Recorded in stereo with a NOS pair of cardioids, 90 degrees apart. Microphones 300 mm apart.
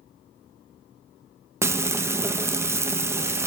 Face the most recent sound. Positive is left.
turn(degrees=-10)